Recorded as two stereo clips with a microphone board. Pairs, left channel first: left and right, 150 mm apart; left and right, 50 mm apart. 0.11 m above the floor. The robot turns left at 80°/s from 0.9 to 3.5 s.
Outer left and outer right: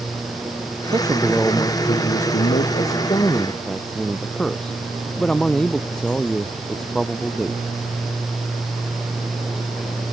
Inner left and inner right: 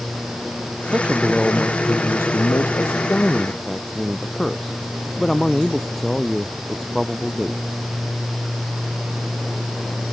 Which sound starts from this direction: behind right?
A man speaking, at 0.8 s.